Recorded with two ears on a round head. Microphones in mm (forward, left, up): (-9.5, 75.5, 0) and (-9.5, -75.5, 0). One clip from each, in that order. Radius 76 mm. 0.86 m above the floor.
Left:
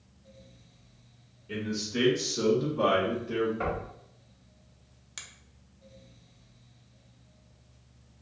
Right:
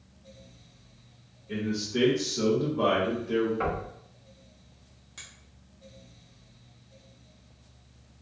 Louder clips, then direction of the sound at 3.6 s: Right 2 dB; 10° right (ahead or behind).